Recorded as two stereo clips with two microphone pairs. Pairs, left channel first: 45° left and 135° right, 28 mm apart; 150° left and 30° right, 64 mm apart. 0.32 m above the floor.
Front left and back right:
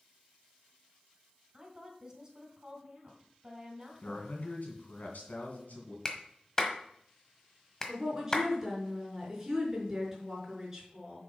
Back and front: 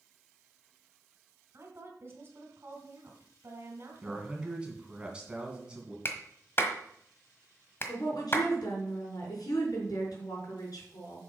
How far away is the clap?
About 1.3 m.